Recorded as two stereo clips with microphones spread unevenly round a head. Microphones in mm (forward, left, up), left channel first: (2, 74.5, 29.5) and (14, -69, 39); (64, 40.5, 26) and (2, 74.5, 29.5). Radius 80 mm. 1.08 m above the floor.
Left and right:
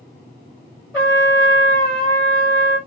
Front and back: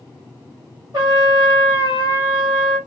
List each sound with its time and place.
0.9 s a trumpet: 175° left, 1.2 m